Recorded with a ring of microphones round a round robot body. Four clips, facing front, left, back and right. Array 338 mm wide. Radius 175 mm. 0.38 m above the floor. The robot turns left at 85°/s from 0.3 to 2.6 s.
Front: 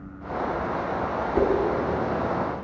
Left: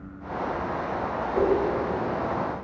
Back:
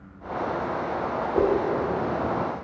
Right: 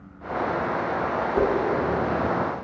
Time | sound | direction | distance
1.3 | a whoosh | 5° right | 0.7 m